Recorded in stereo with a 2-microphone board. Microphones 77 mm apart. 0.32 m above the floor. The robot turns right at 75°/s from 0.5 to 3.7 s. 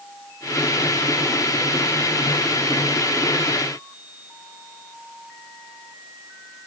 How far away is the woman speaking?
I don't hear a woman speaking.